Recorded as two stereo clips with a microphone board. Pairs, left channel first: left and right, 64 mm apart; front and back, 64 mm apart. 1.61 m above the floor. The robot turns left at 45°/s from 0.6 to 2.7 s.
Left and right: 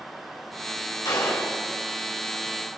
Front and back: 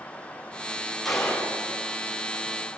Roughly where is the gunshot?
Left.